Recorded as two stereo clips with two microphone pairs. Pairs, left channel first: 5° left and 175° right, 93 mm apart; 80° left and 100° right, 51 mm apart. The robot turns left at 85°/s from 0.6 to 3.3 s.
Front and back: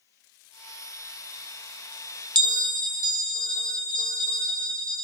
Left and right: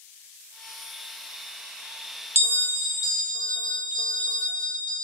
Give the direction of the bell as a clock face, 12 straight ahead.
5 o'clock.